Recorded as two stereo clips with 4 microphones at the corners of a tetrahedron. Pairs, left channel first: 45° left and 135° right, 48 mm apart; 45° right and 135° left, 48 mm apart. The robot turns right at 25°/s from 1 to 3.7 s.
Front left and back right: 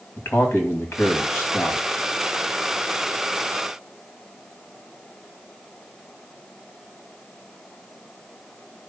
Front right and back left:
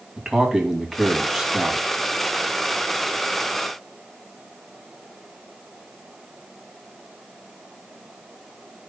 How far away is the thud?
No thud in this recording.